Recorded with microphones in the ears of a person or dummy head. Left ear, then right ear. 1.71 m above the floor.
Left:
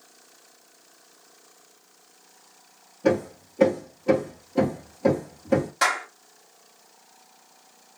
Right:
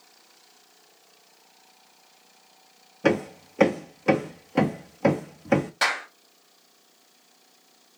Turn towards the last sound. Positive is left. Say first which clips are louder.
# left 1 dB
turn(degrees=-20)  # may be behind; listen again after turning